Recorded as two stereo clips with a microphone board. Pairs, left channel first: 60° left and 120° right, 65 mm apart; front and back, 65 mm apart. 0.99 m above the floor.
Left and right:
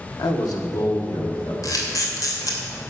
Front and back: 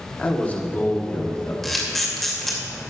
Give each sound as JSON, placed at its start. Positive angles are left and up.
{"t": 0.2, "sound": "a man speaking", "azimuth_deg": 70, "distance_m": 1.6}
{"t": 1.6, "sound": "a camera shutter", "azimuth_deg": 85, "distance_m": 2.5}